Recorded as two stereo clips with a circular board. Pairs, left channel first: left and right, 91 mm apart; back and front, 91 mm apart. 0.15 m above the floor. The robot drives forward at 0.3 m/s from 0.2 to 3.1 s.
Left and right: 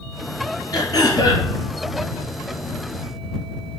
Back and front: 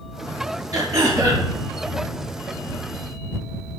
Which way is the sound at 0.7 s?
45° left.